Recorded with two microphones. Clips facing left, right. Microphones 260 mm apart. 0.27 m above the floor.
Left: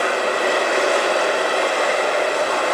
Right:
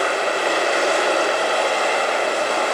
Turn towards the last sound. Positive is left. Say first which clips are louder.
# left 1 dB
turn(degrees=65)  # may be behind; listen again after turning